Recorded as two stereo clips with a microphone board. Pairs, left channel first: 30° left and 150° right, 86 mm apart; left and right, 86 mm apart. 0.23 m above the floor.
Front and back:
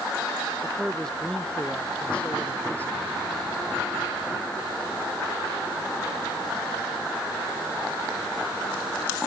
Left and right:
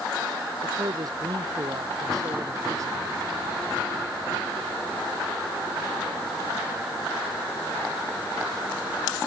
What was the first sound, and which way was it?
A man speaking, 55° right.